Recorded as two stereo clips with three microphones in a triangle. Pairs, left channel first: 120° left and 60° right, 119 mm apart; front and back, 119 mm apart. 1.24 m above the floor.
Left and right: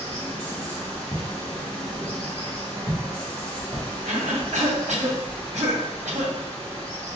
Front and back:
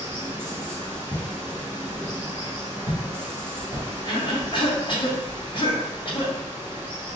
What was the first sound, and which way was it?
Running water, 175° right.